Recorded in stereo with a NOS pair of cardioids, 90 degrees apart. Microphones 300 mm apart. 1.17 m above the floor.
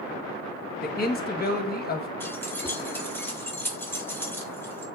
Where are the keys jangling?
5° left, 1.6 m.